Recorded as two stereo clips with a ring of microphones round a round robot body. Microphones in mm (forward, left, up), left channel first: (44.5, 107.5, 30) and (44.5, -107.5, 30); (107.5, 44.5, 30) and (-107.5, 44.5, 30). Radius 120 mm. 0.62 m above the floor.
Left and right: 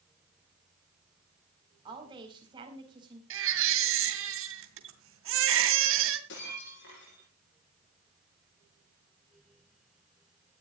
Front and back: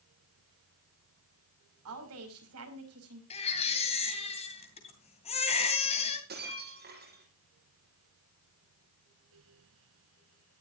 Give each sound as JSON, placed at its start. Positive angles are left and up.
{"t": 1.9, "sound": "a woman speaking", "azimuth_deg": -160, "distance_m": 4.5}
{"t": 3.3, "sound": "a baby crying", "azimuth_deg": -65, "distance_m": 2.5}
{"t": 6.3, "sound": "breaking glass", "azimuth_deg": 135, "distance_m": 9.0}